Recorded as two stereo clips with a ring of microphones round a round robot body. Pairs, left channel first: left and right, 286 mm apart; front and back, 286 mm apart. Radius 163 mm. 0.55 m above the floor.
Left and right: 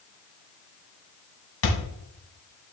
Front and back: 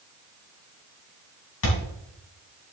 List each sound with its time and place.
1.6 s a thud: 50° left, 2 m